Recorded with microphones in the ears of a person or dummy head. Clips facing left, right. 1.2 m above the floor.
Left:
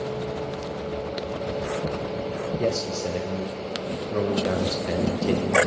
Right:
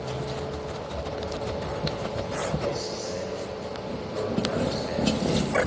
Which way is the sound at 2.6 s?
65° left (ahead or behind).